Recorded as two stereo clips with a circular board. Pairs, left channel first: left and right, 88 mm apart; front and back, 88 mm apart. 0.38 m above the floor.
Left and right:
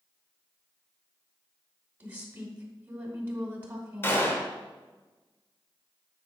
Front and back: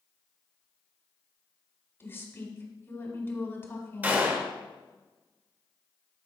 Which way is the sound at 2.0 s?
35° right.